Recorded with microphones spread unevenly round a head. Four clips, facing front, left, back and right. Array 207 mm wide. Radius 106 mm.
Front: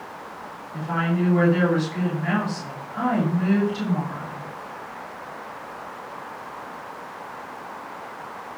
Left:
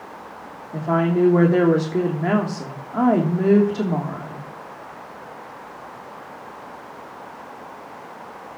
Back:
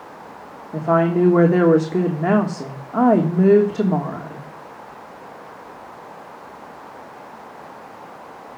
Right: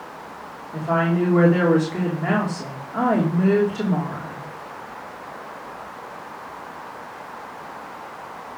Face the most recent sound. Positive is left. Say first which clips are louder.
# left 2 dB, back 8 dB
turn(degrees=165)